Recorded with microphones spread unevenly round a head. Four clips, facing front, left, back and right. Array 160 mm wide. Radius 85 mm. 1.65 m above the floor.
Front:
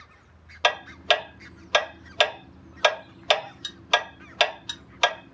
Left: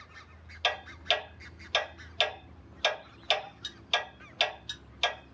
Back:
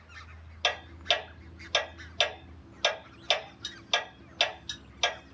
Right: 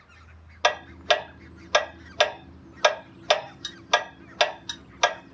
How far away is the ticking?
About 0.6 m.